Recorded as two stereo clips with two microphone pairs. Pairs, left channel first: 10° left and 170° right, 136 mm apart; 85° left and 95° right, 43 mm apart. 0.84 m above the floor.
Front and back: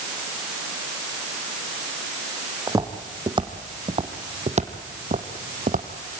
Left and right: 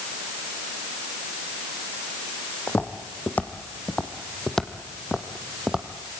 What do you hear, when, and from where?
2.7 s footsteps: 130° left, 3 m; by 5.9 s 170° right, 2.5 m